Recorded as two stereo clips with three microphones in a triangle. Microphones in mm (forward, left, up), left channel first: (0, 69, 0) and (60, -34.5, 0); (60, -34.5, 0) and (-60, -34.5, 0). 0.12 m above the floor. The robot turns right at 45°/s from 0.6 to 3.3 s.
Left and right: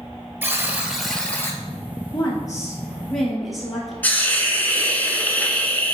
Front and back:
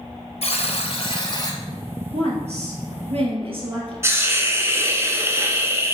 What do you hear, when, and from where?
0.4 s a buzzer: 10° left, 1.0 m; by 1.6 s 55° left, 1.0 m
2.1 s a woman speaking: 160° left, 2.5 m; by 3.9 s 150° right, 2.5 m
4.0 s a hiss: 170° left, 0.8 m